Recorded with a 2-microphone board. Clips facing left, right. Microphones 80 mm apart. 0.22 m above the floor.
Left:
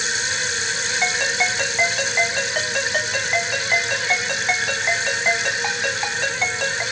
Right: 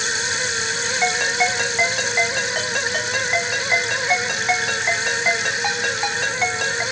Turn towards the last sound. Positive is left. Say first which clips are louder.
# right 3 dB
turn(degrees=0)  # may be behind; listen again after turning